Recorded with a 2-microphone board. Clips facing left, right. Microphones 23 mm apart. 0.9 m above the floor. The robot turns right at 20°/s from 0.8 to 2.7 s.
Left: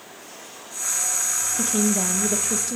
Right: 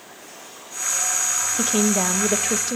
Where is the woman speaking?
40° right (ahead or behind), 0.7 m; by 2.8 s 35° right (ahead or behind), 0.7 m.